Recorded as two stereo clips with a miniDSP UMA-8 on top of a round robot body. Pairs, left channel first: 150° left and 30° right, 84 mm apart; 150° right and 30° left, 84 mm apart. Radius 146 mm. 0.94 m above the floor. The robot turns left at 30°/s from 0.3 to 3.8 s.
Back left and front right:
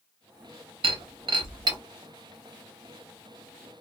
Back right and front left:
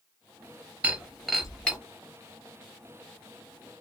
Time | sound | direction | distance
0.8 | breaking glass | 45° right | 0.7 m